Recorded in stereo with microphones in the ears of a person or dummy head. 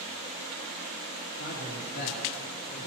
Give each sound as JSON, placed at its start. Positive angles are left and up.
{"t": 1.4, "sound": "a man speaking", "side_deg": 55, "distance_m": 4.0}